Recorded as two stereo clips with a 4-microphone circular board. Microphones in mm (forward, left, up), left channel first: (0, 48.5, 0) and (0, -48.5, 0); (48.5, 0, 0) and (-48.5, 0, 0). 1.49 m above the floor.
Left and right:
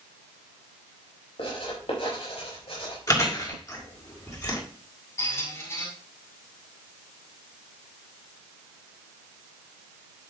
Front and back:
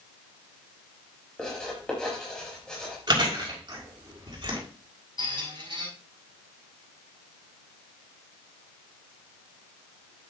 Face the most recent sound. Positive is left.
turn(degrees=150)